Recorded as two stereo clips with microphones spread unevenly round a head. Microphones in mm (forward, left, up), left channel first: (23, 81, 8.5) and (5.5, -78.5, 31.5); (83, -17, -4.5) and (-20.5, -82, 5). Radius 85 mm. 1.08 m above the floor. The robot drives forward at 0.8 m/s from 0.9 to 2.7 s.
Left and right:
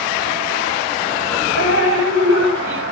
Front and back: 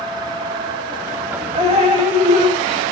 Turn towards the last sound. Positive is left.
turn(degrees=-115)